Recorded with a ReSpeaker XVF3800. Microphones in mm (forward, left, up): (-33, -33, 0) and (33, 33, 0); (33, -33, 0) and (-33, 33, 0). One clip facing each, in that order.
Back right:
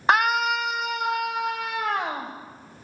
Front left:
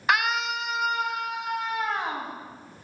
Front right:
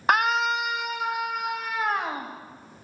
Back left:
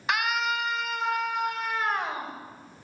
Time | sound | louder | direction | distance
0.1 | a scream | back right 4 dB, front right 5 dB | 85° right | 0.8 m